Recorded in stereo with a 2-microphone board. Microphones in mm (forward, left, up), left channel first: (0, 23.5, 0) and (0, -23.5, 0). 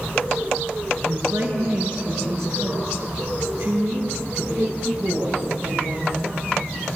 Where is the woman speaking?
75° right (ahead or behind), 6.5 m; by 6.7 s 80° right, 13 m.